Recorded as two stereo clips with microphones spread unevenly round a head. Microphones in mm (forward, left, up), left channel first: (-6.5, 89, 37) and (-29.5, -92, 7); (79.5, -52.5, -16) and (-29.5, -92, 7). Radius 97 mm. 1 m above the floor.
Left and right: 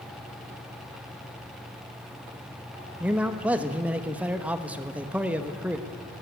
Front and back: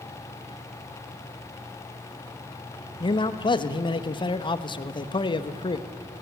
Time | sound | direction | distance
3.0 | a man speaking | 20° right | 1.2 m